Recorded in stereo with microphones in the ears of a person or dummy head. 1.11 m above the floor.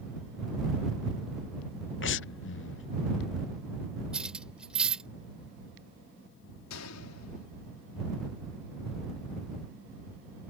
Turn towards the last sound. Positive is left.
turn(degrees=85)